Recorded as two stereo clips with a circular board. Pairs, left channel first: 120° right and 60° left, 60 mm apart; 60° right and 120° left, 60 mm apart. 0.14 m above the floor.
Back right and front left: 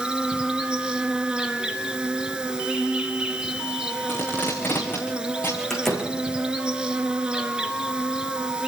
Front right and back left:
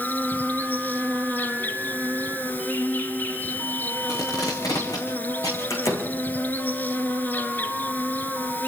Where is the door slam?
35° right, 6.5 m.